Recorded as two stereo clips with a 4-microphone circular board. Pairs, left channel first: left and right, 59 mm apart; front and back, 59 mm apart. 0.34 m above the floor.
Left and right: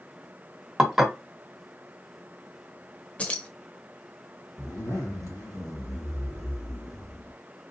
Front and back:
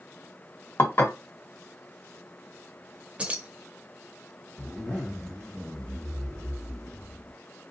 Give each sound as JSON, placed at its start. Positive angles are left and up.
{"t": 0.8, "sound": "dishes clattering", "azimuth_deg": -5, "distance_m": 0.8}
{"t": 3.2, "sound": "keys jangling", "azimuth_deg": 135, "distance_m": 0.7}
{"t": 4.6, "sound": "a zipper", "azimuth_deg": 75, "distance_m": 1.8}